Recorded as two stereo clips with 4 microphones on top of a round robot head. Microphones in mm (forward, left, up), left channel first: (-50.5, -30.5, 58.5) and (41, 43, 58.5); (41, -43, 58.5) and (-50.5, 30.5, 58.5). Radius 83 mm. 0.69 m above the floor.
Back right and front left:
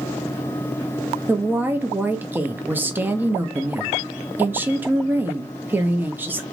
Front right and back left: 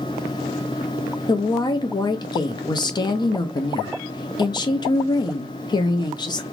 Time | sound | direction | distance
1.3 | a woman speaking | 25° right | 0.5 m